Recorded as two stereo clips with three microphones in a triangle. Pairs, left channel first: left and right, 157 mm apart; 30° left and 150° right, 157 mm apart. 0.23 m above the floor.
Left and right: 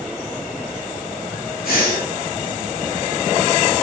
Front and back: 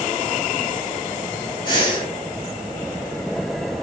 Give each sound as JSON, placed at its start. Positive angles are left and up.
{"t": 1.6, "sound": "breathing", "azimuth_deg": 85, "distance_m": 0.9}